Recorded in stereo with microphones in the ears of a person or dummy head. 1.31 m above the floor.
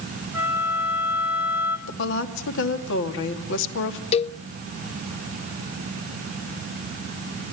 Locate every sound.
0.3 s a flute: 15° right (ahead or behind), 3 m
1.9 s a woman speaking: 70° left (ahead or behind), 2.5 m
4.1 s a cowbell: 35° left (ahead or behind), 0.6 m